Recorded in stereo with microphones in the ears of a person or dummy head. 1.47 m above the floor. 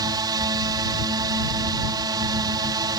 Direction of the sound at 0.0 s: 20° right (ahead or behind).